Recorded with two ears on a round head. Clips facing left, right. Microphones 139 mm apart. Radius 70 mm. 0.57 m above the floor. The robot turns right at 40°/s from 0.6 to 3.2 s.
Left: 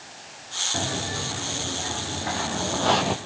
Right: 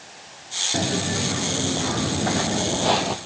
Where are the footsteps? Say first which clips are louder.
Right 5 dB; 35° right (ahead or behind), 3 m; by 3.2 s 10° left (ahead or behind), 1.1 m.